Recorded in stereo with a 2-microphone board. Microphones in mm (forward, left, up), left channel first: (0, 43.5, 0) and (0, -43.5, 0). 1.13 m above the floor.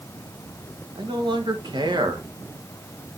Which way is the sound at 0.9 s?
65° right (ahead or behind).